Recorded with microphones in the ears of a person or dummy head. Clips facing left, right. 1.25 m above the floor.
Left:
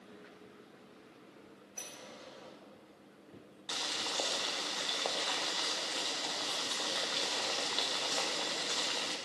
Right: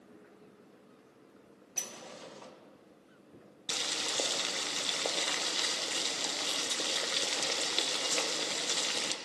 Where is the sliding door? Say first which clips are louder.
Right 4 dB; 75° right (ahead or behind), 1.1 m.